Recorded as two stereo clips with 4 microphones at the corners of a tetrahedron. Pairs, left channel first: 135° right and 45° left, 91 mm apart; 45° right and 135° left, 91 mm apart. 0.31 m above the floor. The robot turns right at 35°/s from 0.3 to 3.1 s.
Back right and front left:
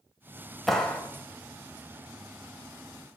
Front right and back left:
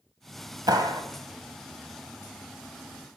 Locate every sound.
0.7 s a clap: 140° left, 1.3 m; by 1.0 s 150° left, 1.3 m